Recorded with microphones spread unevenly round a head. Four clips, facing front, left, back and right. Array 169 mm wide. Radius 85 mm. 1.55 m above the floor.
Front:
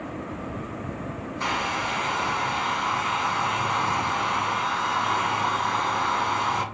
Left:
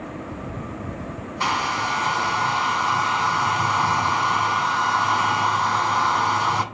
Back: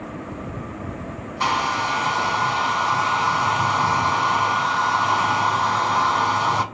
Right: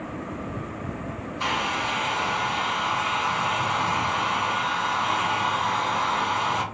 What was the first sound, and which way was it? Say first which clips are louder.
A hair dryer: left 4 dB, back 6 dB; 155° left.